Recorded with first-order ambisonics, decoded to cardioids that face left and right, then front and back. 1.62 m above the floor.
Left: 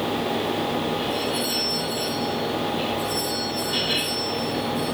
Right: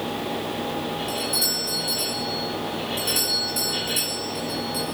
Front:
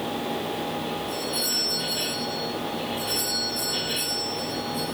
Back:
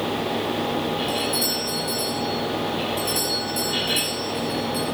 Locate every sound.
1.1 s a doorbell: 120° right, 6 m